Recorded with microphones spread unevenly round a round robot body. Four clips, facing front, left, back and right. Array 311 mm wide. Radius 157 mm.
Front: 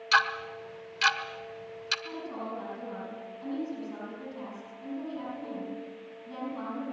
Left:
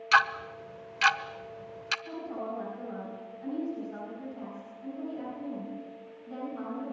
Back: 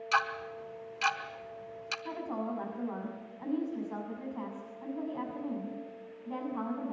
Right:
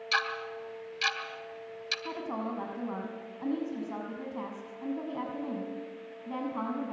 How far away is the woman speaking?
About 7 m.